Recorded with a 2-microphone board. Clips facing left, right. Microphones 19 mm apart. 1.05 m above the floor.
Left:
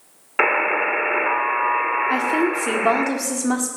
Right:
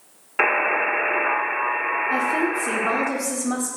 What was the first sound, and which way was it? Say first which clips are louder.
A buzzer: left 1 dB; 20° left (ahead or behind).